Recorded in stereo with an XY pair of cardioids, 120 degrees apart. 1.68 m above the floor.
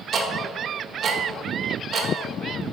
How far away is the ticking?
About 1.3 m.